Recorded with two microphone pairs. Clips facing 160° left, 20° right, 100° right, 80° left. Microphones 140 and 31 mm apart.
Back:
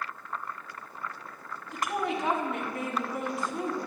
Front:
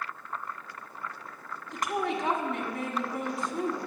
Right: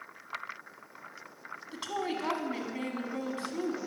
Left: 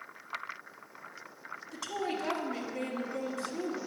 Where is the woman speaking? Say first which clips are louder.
Even, right 1 dB; 115° right, 1.5 m.